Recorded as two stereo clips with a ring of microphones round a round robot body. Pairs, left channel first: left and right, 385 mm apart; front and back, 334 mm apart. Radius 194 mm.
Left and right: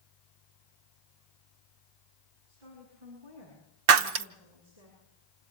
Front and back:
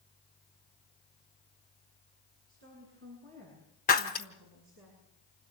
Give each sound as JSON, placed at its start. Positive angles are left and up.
{"t": 2.5, "sound": "a woman speaking", "azimuth_deg": -115, "distance_m": 8.0}
{"t": 3.9, "sound": "breaking glass", "azimuth_deg": -75, "distance_m": 0.9}